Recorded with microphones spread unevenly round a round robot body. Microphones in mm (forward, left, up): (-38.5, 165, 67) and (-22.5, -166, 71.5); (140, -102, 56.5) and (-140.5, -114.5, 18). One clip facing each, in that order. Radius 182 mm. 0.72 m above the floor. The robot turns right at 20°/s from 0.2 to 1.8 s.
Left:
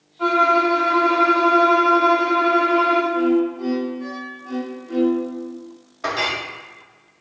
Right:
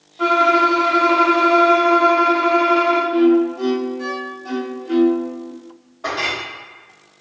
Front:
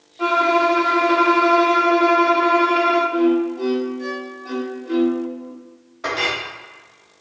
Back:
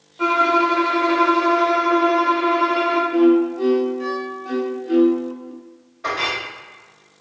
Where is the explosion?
I don't hear an explosion.